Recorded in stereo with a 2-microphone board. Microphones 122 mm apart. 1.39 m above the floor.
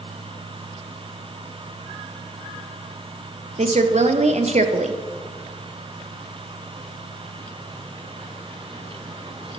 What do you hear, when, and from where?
3.6 s a woman speaking: 65° right (ahead or behind), 0.5 m